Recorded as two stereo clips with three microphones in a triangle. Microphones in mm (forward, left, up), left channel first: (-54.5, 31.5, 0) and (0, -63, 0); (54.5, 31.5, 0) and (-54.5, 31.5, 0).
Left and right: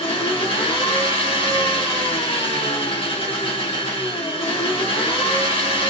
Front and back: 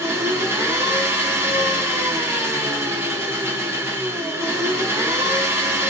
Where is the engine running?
120° left, 0.9 m.